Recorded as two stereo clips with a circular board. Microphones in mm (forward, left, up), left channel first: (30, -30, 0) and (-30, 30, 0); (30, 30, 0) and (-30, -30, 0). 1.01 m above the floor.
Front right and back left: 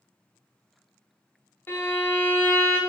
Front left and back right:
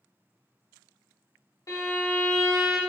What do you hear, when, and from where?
1.7 s a violin: 15° left, 0.9 m